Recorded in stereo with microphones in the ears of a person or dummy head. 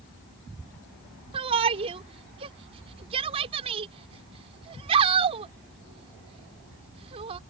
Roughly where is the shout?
Right.